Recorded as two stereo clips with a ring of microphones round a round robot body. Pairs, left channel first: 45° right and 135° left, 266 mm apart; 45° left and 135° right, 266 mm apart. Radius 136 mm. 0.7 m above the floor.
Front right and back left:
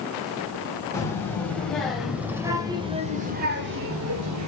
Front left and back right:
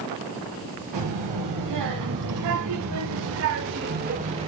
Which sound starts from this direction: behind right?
A child speaking, at 0.9 s.